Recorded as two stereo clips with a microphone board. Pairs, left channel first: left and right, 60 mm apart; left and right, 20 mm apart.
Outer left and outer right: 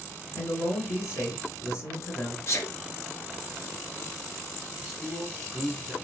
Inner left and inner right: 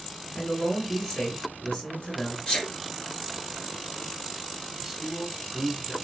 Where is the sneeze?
45° left (ahead or behind), 2.5 m.